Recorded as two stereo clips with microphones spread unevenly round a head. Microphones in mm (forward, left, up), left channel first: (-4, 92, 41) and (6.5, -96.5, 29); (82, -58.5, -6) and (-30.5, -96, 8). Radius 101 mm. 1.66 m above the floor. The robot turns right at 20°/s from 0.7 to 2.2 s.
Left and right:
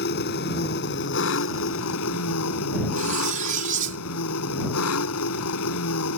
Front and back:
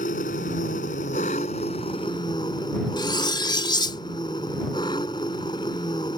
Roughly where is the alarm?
No alarm in this recording.